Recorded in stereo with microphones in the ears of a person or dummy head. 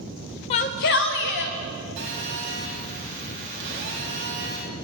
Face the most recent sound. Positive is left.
turn(degrees=-60)  # may be behind; listen again after turning